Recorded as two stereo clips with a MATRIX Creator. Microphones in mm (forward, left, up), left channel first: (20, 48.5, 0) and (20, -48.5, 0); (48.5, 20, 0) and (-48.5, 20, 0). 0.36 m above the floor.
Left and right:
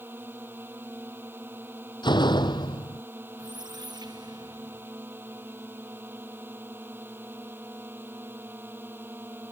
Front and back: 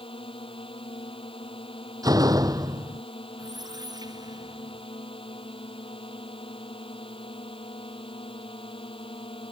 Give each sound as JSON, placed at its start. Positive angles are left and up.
{"t": 0.0, "sound": "a drone", "azimuth_deg": -20}
{"t": 2.0, "sound": "a door slam", "azimuth_deg": 130}
{"t": 3.4, "sound": "a squeak", "azimuth_deg": -135}